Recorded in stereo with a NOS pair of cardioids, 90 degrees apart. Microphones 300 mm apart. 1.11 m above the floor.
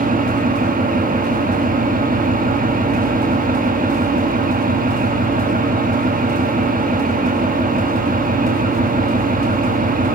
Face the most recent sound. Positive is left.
turn(degrees=-30)